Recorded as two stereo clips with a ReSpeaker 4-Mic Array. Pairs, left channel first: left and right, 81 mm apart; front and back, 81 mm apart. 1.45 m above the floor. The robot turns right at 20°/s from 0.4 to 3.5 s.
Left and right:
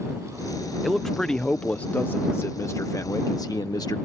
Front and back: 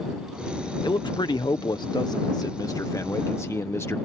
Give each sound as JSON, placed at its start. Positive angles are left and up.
{"t": 0.8, "sound": "a man speaking", "azimuth_deg": 0}